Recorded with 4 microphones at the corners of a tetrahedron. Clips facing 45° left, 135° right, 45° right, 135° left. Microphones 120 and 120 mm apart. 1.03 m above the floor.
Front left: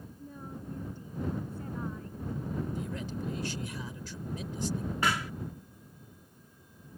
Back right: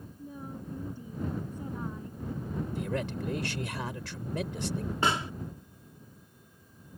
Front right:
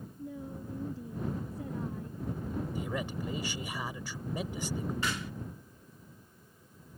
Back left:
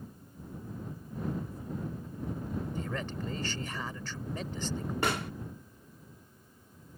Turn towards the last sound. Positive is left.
turn(degrees=165)